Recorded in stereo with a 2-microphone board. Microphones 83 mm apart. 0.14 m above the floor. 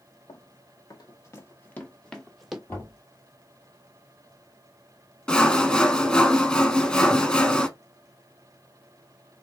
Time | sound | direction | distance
0.3 | running footsteps | 60° left (ahead or behind) | 1.4 m
2.7 | knocking | 25° left (ahead or behind) | 2.5 m
5.3 | sawing | 10° left (ahead or behind) | 0.6 m